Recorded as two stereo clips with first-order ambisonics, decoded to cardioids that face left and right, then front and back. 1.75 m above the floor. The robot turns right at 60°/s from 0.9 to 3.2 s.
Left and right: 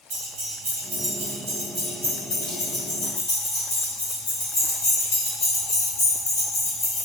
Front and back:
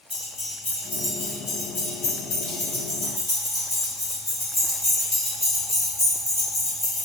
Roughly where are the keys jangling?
Right.